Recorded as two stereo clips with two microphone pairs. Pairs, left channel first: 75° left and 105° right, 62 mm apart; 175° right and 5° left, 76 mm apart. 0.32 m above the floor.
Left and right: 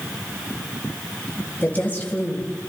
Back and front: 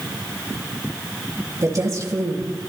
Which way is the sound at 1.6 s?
25° left.